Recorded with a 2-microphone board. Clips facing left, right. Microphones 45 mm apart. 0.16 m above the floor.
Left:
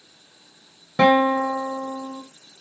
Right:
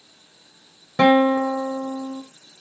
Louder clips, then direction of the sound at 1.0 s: Right 1 dB; 5° left (ahead or behind).